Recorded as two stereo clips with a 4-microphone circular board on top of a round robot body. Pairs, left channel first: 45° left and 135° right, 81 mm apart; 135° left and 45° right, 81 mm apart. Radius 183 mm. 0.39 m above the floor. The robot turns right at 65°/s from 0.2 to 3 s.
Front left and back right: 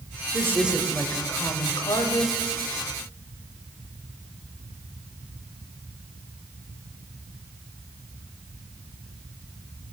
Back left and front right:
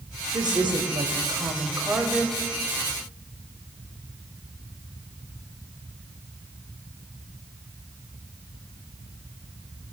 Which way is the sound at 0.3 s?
80° right.